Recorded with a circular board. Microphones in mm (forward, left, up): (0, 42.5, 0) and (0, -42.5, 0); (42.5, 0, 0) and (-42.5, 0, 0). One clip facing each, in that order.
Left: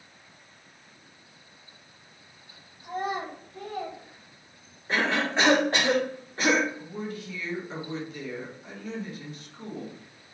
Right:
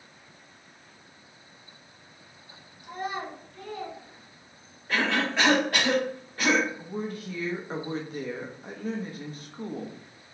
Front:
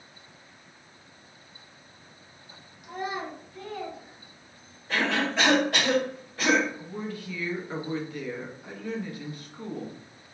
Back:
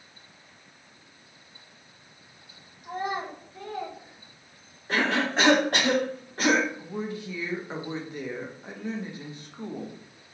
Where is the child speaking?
130° left, 1.9 m; by 4.8 s 70° left, 1.6 m.